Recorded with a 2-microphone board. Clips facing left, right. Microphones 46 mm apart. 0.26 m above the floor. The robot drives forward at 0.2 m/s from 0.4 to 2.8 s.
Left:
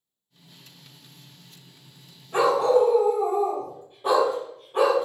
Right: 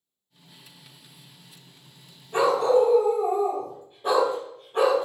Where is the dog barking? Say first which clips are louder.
Left 1 dB; 5° left (ahead or behind), 1.7 m.